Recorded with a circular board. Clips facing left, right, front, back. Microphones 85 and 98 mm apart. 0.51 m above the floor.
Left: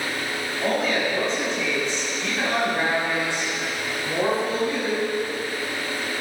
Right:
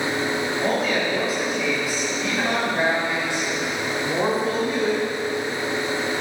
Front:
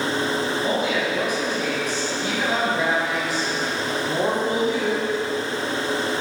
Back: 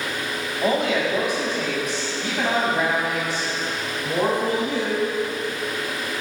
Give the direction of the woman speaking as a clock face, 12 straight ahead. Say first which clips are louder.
Left 2 dB, back 7 dB; 6 o'clock.